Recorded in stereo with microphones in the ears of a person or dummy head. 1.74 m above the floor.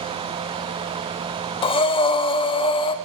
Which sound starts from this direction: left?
Breathing, at 1.6 s.